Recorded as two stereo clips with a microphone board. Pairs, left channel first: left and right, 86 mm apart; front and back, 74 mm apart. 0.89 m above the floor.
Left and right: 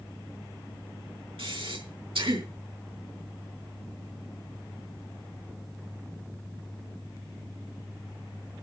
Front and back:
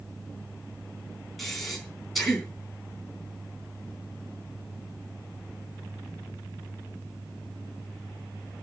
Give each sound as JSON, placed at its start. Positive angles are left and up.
{"t": 1.4, "sound": "breathing", "azimuth_deg": -85, "distance_m": 4.0}